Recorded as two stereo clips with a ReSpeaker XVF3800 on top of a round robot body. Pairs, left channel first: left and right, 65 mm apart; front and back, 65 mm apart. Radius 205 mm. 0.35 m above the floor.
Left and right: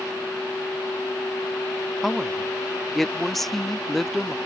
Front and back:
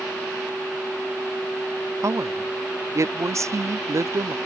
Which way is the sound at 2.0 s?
175° left.